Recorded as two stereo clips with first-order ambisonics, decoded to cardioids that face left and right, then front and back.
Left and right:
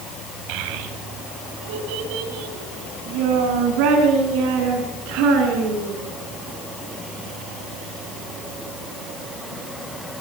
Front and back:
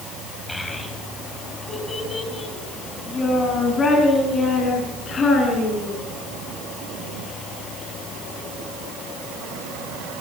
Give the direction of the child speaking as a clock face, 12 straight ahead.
3 o'clock.